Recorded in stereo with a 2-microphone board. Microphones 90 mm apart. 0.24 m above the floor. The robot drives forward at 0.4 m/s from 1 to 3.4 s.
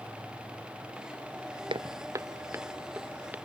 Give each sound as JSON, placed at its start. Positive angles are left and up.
{"t": 1.7, "sound": "footsteps", "side_deg": -70}